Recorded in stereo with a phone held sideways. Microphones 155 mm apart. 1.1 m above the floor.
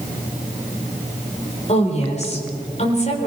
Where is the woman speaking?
45° left (ahead or behind), 4.5 m.